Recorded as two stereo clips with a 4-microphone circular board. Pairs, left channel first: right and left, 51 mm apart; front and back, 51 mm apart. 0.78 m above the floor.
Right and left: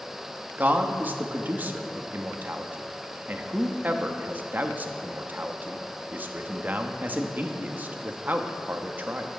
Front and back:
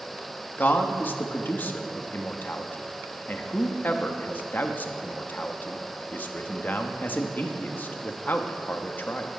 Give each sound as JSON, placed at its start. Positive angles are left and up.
{"t": 0.6, "sound": "a man speaking", "azimuth_deg": 45, "distance_m": 0.9}